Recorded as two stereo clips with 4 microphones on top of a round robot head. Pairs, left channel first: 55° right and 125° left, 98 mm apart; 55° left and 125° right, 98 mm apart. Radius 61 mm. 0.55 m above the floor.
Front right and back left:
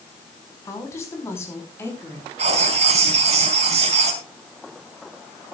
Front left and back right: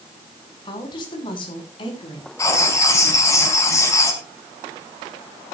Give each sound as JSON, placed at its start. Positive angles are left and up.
{"t": 0.7, "sound": "a woman speaking", "azimuth_deg": 10, "distance_m": 4.5}
{"t": 2.4, "sound": "writing", "azimuth_deg": 115, "distance_m": 3.5}